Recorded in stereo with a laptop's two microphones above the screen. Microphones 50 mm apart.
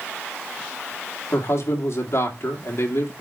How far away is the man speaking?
About 1.9 m.